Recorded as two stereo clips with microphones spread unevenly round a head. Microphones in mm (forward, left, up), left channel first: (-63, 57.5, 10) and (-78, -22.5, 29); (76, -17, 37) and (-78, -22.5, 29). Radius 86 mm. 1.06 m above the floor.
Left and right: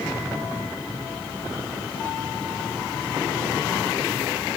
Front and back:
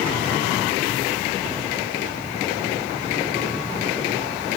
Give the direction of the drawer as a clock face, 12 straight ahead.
No drawer in this recording.